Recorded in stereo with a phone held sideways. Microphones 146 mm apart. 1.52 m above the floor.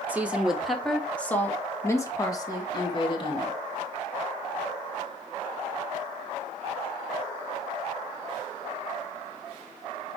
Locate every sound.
0.1 s a woman speaking: 10° right (ahead or behind), 1.6 m; by 3.6 s 35° left (ahead or behind), 2.5 m